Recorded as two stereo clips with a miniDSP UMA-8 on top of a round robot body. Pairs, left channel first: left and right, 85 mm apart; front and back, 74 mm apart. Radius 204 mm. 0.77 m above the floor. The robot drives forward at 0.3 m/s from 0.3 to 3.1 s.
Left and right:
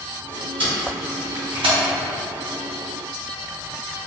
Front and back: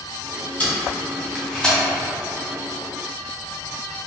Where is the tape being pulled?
75° right, 1.9 m; by 1.8 s 85° right, 1.9 m.